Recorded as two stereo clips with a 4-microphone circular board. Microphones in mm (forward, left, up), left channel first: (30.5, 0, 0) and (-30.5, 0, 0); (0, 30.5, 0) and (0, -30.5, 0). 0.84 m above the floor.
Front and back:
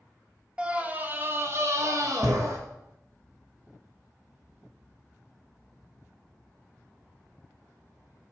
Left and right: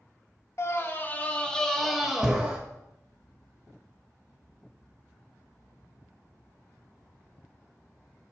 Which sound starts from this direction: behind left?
A scream, at 0.6 s.